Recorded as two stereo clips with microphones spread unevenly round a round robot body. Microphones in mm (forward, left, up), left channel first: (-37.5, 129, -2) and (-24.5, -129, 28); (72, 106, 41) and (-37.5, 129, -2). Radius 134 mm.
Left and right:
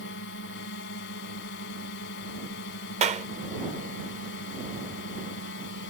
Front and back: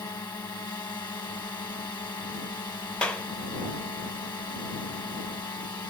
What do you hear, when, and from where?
0.0 s a drone: 50° left
3.0 s a clap: 130° right